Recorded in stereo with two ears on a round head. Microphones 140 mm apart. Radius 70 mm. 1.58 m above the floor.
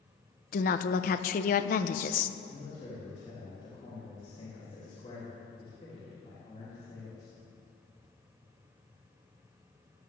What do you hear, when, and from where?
0.5 s a woman speaking: 55° left (ahead or behind), 0.7 m
2.5 s a man speaking: 35° left (ahead or behind), 3.5 m